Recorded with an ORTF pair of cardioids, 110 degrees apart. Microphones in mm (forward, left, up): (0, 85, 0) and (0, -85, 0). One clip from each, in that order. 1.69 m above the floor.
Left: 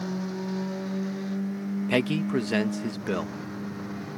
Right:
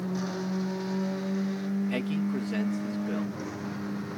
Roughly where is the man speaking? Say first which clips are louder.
Left 10 dB; ahead left.